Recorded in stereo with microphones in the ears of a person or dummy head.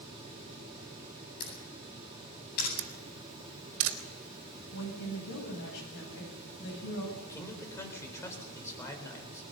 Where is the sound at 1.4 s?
55° left (ahead or behind), 8.5 m.